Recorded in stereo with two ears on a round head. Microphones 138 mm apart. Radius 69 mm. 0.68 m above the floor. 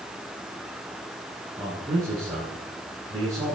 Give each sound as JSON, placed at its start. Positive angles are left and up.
{"t": 1.6, "sound": "a man speaking", "side_deg": -20, "distance_m": 5.0}